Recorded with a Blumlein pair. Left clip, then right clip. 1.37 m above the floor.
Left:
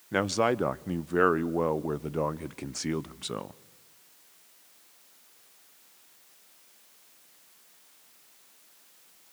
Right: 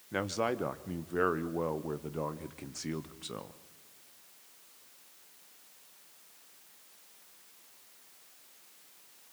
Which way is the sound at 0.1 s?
70° left.